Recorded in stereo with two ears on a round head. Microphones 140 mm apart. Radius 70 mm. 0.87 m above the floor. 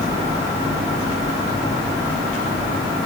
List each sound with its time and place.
Only background noise.